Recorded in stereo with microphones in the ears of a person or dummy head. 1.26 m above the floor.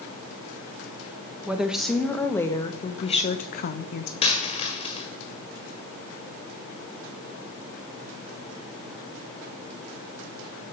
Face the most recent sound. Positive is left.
turn(degrees=30)  # may be behind; listen again after turning